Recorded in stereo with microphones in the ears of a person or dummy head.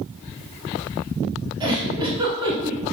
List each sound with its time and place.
1.6 s a giggle: 25° right (ahead or behind), 1.0 m